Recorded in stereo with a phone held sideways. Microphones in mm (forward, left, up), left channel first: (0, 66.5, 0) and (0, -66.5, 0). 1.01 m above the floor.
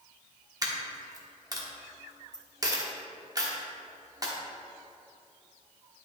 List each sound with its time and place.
0.6 s a dropped coin: 30° right (ahead or behind), 1.2 m